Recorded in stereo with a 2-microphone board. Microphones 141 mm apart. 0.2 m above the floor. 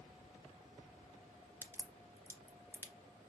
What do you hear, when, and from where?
1.6 s a crack: 15° right (ahead or behind), 0.7 m